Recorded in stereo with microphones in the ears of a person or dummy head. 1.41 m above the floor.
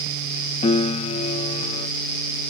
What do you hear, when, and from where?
0.6 s a piano: 30° left (ahead or behind)